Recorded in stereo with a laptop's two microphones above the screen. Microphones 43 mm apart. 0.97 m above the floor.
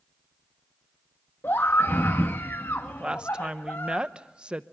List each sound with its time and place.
1.4 s a scream: 65° left (ahead or behind), 1.4 m
3.0 s a woman speaking: 25° right (ahead or behind), 0.8 m